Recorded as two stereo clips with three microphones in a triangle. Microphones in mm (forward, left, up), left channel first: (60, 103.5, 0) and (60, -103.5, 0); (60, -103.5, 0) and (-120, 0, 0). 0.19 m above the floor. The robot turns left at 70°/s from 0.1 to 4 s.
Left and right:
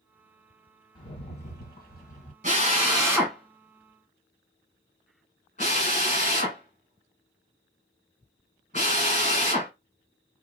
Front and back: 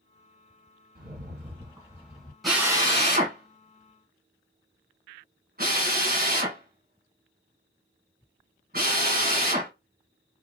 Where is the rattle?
145° left, 1.5 m; by 2.3 s 50° left, 1.5 m.